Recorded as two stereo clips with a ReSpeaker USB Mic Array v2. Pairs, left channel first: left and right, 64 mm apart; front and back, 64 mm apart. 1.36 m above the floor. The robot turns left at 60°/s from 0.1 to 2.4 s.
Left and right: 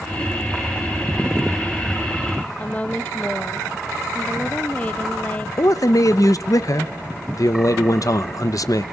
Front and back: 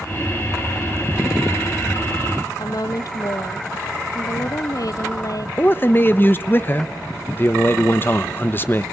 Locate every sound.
2.6 s a woman speaking: 20° left, 0.7 m
5.6 s a man speaking: 55° left, 0.9 m